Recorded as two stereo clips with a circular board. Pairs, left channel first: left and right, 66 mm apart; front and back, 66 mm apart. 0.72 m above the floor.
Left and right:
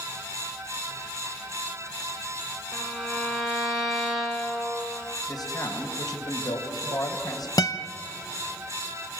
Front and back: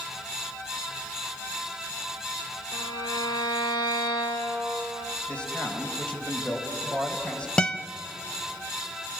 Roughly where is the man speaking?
Left.